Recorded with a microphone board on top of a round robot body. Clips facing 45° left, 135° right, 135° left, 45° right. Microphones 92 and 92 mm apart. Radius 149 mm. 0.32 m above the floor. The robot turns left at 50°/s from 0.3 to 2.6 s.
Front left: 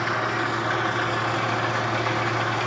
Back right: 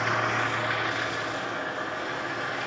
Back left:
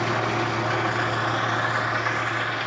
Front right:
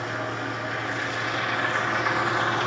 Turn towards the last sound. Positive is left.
turn(degrees=15)